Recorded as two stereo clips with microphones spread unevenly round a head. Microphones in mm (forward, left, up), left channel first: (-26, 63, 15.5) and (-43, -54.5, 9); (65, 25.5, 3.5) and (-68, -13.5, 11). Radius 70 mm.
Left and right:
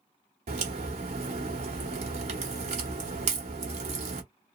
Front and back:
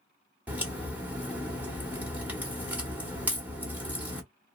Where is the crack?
90° right, 1.1 m.